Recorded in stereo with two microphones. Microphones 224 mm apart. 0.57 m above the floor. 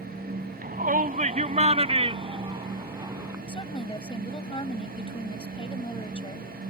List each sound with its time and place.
0.6 s a shout: 40° right (ahead or behind); by 3.4 s 15° right (ahead or behind)
3.5 s a woman speaking: 25° left (ahead or behind)